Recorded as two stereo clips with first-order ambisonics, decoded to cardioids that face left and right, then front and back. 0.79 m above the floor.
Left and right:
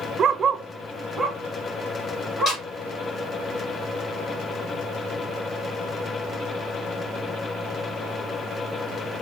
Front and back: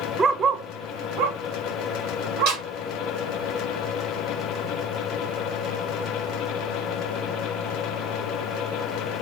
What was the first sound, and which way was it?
A dog barking, 125° right.